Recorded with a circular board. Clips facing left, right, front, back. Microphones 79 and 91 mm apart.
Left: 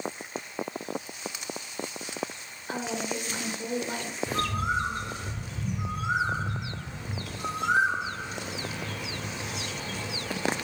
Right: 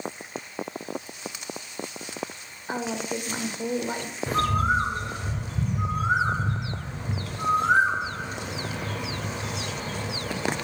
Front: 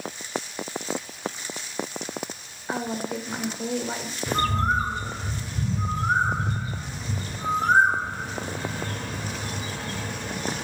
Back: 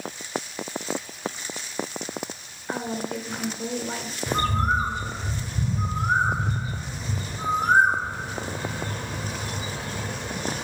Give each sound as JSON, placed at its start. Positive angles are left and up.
{"t": 2.7, "sound": "a woman speaking", "azimuth_deg": -60, "distance_m": 1.0}
{"t": 4.3, "sound": "a bird", "azimuth_deg": -110, "distance_m": 1.1}